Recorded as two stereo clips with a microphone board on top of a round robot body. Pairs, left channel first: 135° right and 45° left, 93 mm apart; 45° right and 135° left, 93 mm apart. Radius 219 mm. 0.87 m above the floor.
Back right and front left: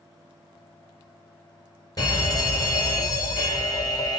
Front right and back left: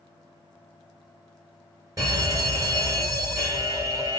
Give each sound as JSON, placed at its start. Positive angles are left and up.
{"t": 2.0, "sound": "a fire alarm", "azimuth_deg": -175, "distance_m": 2.5}